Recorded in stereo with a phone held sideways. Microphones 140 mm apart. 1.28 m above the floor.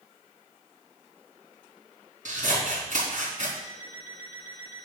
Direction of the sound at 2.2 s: 65° right (ahead or behind).